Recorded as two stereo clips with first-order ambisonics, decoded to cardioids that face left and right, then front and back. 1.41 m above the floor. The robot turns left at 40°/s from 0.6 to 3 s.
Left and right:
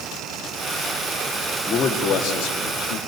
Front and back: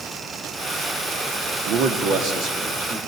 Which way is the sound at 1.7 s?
155° left.